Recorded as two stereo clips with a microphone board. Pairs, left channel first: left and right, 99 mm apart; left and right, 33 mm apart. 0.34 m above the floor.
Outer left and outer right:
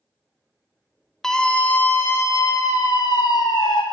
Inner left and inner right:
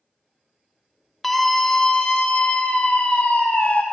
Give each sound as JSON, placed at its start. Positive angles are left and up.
{"t": 1.2, "sound": "a scream", "side_deg": 5, "distance_m": 1.3}